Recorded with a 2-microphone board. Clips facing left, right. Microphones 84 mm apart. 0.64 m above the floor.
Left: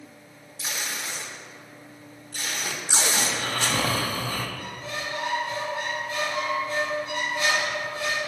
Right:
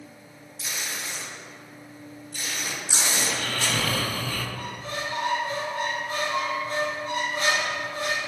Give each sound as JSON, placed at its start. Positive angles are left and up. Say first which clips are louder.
{"t": 0.6, "sound": "tape being pulled", "louder": "left 1 dB", "side_deg": 70, "distance_m": 1.0}
{"t": 3.2, "sound": "snoring", "louder": "left 1 dB", "side_deg": 30, "distance_m": 0.6}
{"t": 4.6, "sound": "a squeak", "louder": "right 1 dB", "side_deg": -45, "distance_m": 1.7}